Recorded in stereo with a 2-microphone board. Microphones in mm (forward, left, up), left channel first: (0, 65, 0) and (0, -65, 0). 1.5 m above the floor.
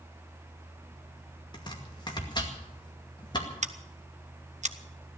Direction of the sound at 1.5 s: 35° left (ahead or behind).